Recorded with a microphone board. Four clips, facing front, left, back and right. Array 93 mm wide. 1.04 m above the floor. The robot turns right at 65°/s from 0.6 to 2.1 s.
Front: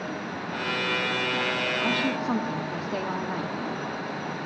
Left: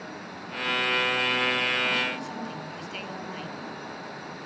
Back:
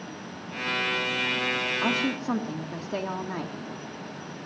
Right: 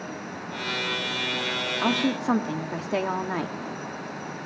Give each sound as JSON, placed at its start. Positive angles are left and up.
{"t": 1.8, "sound": "a woman speaking", "azimuth_deg": -115, "distance_m": 2.0}